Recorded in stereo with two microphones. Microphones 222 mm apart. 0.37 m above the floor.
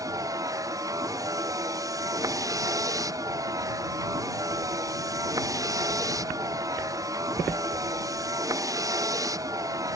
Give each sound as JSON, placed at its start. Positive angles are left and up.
{"t": 0.0, "sound": "a vehicle", "side_deg": -15}